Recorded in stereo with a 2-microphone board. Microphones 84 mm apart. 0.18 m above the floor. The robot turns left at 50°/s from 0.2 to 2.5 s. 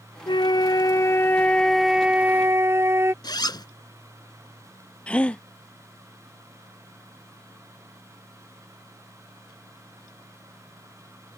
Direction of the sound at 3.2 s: 55° left (ahead or behind).